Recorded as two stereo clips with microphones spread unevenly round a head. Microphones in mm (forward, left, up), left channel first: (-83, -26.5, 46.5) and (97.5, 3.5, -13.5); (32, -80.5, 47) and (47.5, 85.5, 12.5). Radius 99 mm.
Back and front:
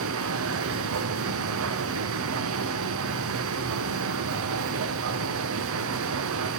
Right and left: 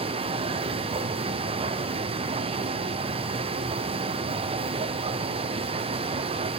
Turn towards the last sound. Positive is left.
turn(degrees=25)